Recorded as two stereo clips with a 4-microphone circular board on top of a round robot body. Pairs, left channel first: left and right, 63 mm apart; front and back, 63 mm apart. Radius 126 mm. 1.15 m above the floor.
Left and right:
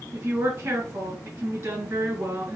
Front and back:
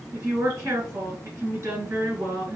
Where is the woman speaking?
135° right, 2 m.